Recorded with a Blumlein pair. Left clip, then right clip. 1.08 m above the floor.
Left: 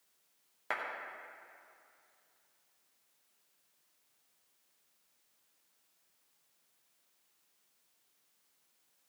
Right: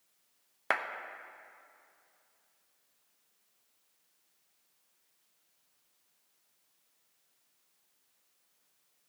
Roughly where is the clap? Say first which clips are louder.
Right 6 dB; ahead right.